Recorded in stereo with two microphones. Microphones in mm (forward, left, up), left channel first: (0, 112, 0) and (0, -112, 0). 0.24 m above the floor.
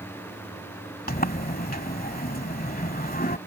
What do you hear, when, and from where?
1.1 s a sliding door: 40° left (ahead or behind)